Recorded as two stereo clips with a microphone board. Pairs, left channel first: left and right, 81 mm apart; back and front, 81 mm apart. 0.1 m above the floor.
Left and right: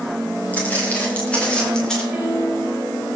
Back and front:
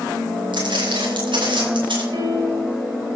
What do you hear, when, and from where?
0.5 s footsteps: 20° left, 8 m; by 2.0 s 5° left, 6.5 m
2.1 s a piano: 10° right, 6 m